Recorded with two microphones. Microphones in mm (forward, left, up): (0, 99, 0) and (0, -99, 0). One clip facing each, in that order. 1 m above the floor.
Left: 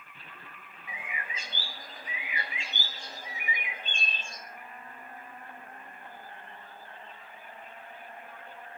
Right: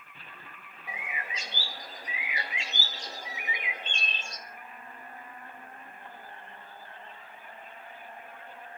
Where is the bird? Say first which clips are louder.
Right 2 dB; 85° right, 2.5 m.